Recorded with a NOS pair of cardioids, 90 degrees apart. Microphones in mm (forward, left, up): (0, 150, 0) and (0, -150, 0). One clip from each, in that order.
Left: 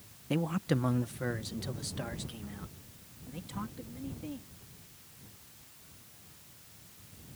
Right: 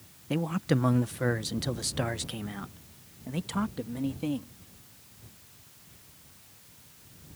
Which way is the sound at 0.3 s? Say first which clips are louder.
Right 3 dB; straight ahead.